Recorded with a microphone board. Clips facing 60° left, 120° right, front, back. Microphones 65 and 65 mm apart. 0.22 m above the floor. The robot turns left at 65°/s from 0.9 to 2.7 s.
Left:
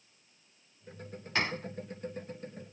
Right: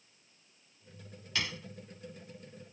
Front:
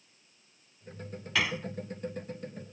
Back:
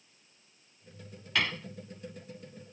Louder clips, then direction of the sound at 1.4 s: Left 5 dB, front 1 dB; 85° left.